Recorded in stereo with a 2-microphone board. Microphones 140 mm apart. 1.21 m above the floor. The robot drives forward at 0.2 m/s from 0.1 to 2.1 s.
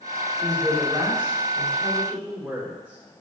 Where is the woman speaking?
10° right (ahead or behind), 3 m.